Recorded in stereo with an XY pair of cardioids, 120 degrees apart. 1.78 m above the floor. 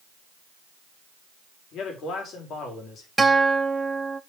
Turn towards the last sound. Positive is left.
turn(degrees=-15)